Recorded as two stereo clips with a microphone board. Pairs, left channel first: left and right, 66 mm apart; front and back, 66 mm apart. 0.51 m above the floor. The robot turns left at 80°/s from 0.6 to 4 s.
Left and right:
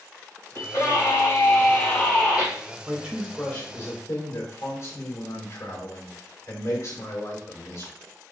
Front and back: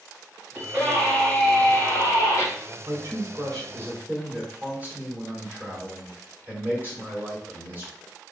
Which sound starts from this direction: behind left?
A scream, at 0.6 s.